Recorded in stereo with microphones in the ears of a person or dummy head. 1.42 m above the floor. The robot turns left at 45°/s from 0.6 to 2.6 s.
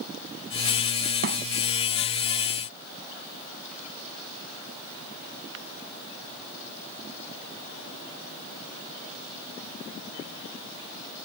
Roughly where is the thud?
Right.